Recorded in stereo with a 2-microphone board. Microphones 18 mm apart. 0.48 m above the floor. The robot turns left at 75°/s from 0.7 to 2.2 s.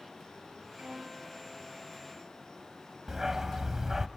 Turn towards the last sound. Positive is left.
turn(degrees=-20)  # may be behind; listen again after turning